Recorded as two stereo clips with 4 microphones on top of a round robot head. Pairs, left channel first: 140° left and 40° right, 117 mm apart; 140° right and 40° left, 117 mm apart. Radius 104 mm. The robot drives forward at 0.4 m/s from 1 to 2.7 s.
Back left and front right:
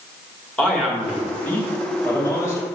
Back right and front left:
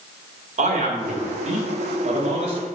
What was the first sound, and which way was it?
A man speaking, 60° left.